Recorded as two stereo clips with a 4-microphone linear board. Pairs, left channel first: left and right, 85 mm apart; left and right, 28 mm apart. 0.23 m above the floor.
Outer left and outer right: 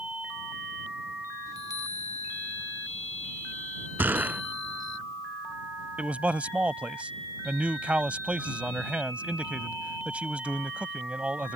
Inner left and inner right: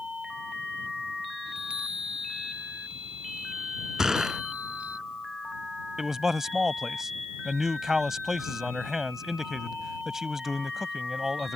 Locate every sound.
1.5 s a chime: 45° right (ahead or behind)
4.0 s a gunshot: 20° right (ahead or behind)
6.0 s a man speaking: 15° right (ahead or behind)